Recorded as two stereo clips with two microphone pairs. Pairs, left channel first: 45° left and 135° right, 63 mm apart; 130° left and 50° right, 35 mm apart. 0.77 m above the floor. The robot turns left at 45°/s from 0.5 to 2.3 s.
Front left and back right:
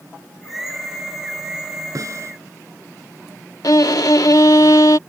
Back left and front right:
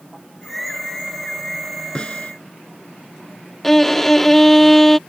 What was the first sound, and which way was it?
A snare drum, 165° right.